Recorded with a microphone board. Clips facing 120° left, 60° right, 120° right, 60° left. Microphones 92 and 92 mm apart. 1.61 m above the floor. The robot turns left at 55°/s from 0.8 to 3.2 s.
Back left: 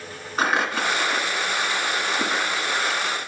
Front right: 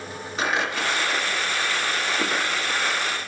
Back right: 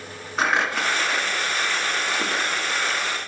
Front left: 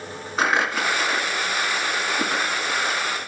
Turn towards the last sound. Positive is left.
turn(degrees=20)